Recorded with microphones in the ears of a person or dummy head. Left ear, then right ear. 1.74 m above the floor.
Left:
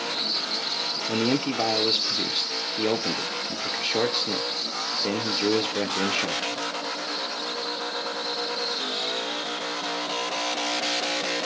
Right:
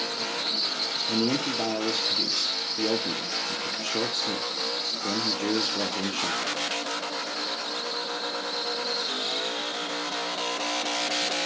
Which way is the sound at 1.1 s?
25° left (ahead or behind).